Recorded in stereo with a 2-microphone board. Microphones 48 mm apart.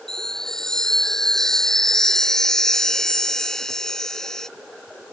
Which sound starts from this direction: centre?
A chime, at 0.1 s.